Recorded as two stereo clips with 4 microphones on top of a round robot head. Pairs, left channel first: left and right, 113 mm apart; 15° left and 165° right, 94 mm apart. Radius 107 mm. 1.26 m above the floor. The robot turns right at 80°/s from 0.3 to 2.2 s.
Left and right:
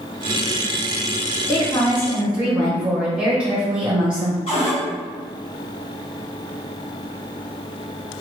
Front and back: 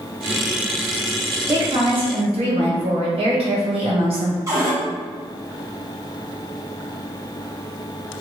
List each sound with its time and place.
1.5 s a woman speaking: 130° left, 1.1 m; by 4.4 s 175° right, 1.1 m
4.5 s a cupboard door: 140° left, 0.6 m